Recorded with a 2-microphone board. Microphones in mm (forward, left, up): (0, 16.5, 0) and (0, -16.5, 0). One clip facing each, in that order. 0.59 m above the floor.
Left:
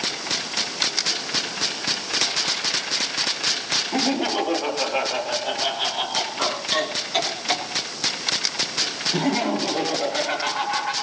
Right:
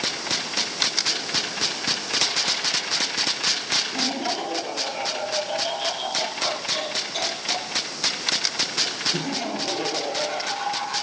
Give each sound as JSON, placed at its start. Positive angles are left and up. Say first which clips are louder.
{"t": 3.9, "sound": "laughter", "louder": "left 4 dB", "side_deg": 75, "distance_m": 8.0}